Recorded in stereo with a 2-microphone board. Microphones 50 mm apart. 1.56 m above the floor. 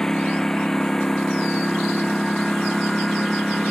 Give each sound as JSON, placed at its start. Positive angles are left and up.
{"t": 0.0, "sound": "a lawn mower", "side_deg": 10}